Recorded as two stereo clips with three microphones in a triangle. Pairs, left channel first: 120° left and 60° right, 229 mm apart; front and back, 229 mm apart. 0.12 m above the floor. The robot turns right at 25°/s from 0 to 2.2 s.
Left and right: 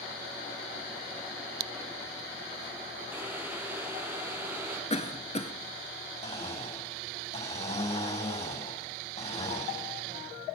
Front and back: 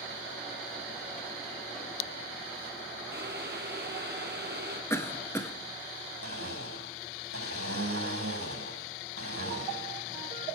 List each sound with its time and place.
3.1 s boiling: 140° right, 2 m
4.9 s a cough: 75° left, 1.5 m
6.2 s a blender: straight behind, 5.5 m